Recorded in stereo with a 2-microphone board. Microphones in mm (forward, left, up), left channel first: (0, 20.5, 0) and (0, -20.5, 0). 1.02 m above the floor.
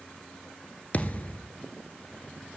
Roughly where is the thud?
Left.